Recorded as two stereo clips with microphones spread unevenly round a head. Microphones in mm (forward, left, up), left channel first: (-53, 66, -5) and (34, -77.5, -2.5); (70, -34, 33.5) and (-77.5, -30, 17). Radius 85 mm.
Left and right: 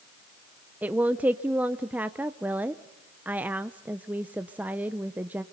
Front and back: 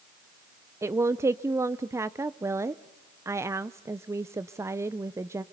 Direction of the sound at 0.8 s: 135° right.